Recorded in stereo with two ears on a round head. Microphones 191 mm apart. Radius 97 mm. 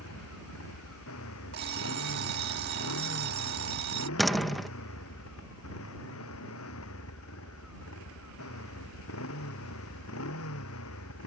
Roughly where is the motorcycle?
Left.